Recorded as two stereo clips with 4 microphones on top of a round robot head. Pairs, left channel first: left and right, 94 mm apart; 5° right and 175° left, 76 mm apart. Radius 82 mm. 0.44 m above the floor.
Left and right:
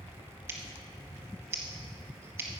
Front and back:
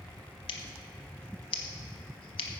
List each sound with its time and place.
0.5 s scissors: 20° right, 0.9 m